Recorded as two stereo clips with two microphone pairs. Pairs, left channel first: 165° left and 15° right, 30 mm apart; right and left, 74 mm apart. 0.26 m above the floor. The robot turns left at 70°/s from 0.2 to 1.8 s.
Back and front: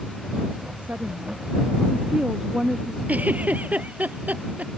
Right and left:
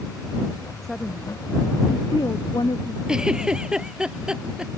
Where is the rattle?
I don't hear a rattle.